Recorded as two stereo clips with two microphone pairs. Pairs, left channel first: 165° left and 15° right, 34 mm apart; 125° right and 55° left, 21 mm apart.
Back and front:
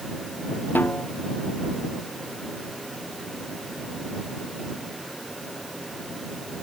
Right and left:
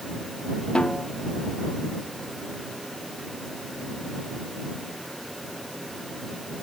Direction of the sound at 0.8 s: 170° right.